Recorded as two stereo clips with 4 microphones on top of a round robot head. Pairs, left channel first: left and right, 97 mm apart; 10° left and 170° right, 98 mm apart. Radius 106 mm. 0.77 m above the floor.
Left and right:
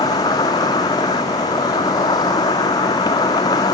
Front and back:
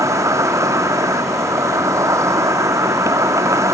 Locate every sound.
0.0 s an insect: 135° left